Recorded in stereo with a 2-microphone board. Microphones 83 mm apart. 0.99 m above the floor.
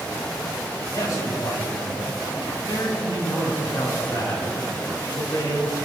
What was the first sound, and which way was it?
A man speaking, 40° left (ahead or behind).